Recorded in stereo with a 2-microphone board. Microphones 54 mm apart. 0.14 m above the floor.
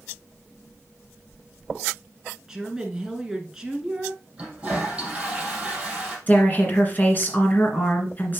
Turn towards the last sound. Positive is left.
turn(degrees=35)  # may be behind; listen again after turning